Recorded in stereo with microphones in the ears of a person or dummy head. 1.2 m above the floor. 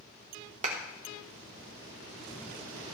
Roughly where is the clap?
Right.